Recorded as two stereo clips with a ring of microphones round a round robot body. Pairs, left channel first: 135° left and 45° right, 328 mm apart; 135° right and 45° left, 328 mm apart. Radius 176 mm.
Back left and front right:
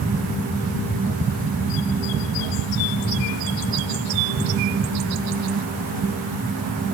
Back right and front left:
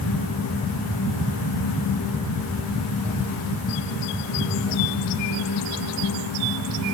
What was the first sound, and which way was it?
Only background noise.